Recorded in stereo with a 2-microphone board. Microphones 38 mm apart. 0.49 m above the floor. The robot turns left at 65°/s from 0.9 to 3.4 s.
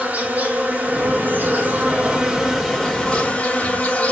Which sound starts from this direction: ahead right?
An insect, at 0.0 s.